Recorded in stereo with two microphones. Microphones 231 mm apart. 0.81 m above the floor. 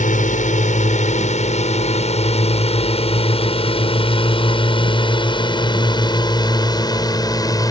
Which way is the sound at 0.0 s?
30° left (ahead or behind).